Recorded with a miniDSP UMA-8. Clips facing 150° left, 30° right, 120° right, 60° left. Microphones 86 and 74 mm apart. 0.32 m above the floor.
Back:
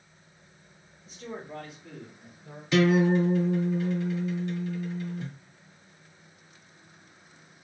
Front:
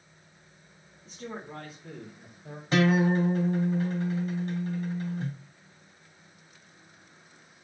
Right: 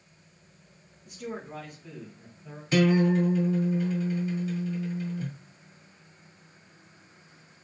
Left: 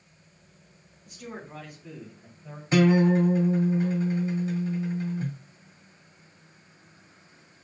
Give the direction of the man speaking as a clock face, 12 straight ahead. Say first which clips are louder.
Even, right 3 dB; 1 o'clock.